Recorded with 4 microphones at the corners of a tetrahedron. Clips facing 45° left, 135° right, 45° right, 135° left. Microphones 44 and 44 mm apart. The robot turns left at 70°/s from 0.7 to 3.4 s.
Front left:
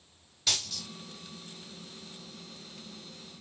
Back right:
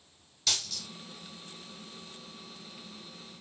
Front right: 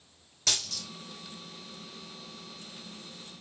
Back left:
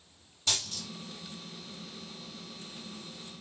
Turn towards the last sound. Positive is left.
turn(degrees=135)